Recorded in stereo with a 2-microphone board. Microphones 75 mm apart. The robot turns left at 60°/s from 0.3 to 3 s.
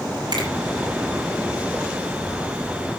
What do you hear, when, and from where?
0.3 s a finger snap: 80° right, 7 m; by 0.5 s 75° right (ahead or behind), 7 m